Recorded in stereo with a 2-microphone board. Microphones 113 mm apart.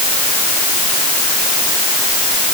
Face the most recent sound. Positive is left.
No sound to turn to.